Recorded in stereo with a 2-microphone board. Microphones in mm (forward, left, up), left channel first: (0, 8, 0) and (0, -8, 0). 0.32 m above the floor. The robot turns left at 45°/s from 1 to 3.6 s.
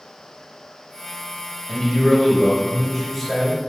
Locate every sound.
1.7 s a man speaking: 15° left (ahead or behind), 1.0 m; by 3.6 s 20° right (ahead or behind), 1.0 m